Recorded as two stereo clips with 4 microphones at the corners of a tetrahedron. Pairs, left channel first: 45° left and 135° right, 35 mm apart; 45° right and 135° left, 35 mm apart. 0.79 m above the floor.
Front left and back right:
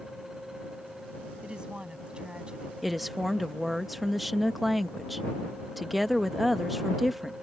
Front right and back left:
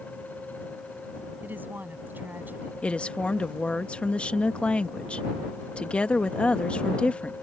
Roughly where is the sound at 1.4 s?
Behind.